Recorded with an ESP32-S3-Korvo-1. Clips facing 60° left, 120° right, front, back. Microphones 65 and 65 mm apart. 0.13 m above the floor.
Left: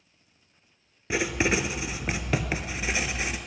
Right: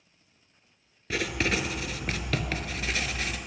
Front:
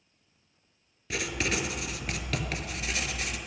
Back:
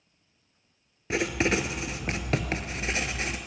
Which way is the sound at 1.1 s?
130° left.